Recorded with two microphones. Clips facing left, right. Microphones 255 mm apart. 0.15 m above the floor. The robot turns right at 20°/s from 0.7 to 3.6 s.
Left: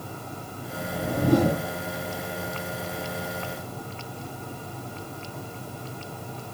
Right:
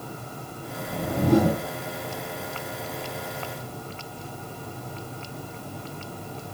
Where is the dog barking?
I don't hear a dog barking.